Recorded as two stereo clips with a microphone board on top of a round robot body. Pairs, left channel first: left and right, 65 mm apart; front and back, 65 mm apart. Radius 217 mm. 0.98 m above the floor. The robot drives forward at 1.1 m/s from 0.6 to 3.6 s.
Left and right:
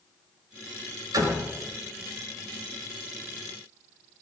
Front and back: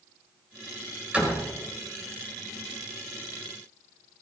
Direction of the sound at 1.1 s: 110° right.